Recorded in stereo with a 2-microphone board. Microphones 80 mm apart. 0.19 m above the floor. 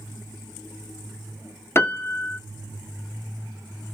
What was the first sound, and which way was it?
A piano, 30° left (ahead or behind).